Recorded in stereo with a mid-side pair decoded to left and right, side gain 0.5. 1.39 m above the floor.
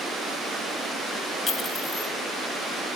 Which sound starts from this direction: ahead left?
A clink, at 1.5 s.